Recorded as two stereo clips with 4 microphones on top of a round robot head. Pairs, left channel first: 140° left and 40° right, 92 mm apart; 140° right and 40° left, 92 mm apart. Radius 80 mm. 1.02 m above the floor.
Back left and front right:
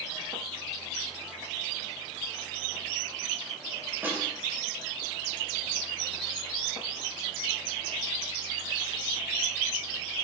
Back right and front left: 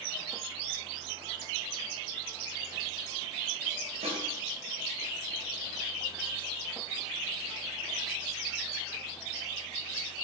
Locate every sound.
4.0 s a snare drum: 30° left, 5.5 m